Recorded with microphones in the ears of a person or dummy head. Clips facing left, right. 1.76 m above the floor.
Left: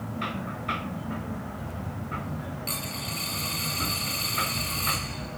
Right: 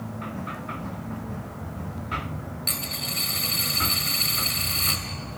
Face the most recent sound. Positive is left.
turn(degrees=-25)  # may be behind; listen again after turning